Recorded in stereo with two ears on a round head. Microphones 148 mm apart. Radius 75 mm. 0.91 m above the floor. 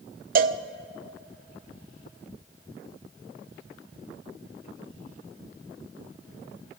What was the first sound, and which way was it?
A cowbell, 55° right (ahead or behind).